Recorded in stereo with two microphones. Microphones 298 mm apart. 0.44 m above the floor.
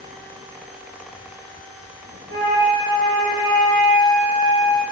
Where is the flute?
50° right (ahead or behind), 2.0 m.